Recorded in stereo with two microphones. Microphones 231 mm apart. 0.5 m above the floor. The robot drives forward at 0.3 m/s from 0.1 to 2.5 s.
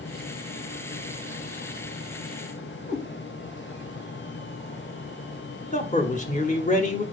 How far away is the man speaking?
About 0.7 m.